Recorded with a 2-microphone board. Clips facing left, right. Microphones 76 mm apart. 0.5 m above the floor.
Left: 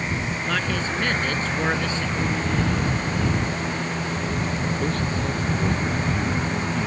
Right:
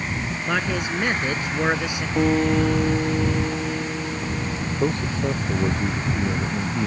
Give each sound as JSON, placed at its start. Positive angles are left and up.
{"t": 0.5, "sound": "a man speaking", "side_deg": -15}
{"t": 2.2, "sound": "a guitar", "side_deg": -80}
{"t": 4.8, "sound": "a man speaking", "side_deg": -20}